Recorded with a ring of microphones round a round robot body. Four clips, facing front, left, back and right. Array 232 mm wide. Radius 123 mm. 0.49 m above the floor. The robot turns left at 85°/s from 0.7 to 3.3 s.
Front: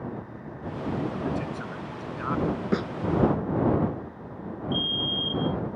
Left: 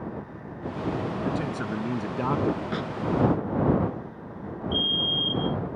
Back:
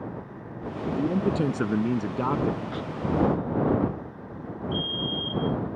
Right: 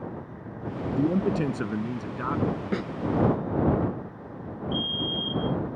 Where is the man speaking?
110° right; by 2.6 s 110° left.